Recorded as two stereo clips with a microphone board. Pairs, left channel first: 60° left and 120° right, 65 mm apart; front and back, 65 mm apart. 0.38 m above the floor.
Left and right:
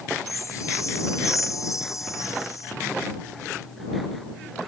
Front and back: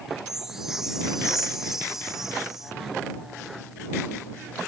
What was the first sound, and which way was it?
A chime, 95° left.